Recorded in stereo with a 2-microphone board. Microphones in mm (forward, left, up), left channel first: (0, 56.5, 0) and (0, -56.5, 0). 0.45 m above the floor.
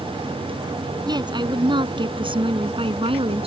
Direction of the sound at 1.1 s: 40° right (ahead or behind).